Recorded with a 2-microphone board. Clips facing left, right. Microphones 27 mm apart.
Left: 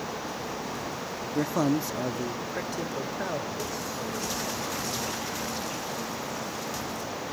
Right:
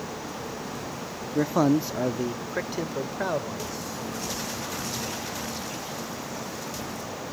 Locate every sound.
1.4 s a man speaking: 10° right (ahead or behind), 0.7 m; by 3.7 s 20° right (ahead or behind), 2 m